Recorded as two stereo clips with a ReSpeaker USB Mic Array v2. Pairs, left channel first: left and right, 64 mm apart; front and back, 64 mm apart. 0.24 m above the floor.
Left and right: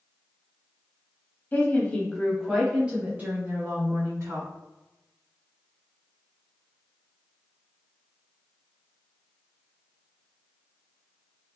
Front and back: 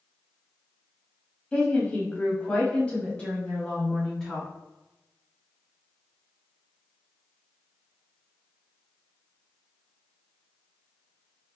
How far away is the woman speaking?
About 1.1 m.